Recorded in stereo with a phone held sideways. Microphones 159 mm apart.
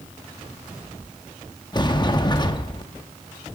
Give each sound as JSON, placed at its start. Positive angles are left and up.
{"t": 1.7, "sound": "a sliding door", "side_deg": 30, "distance_m": 0.6}